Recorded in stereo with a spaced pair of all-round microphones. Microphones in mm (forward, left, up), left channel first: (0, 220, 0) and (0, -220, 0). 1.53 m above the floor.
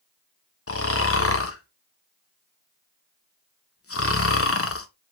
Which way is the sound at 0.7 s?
30° left (ahead or behind).